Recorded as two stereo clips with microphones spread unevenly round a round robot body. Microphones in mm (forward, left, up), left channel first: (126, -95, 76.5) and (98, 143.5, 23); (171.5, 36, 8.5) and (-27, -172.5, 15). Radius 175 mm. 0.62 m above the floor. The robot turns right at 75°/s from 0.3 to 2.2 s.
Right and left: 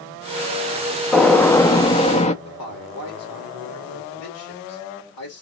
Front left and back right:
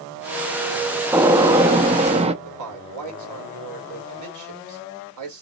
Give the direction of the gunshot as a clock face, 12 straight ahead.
7 o'clock.